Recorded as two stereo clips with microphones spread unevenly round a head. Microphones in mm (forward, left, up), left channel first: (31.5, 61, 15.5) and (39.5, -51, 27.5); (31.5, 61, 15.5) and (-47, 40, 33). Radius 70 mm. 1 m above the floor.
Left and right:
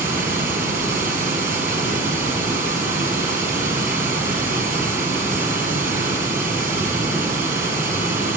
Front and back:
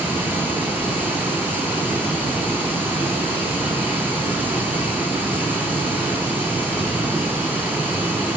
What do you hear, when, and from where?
0.0 s running water: 90° right, 7.5 m